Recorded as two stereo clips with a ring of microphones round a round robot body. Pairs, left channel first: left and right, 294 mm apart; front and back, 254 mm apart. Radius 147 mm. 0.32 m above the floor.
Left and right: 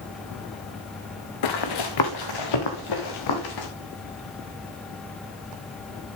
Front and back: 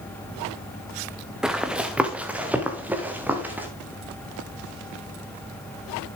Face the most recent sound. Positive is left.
turn(degrees=95)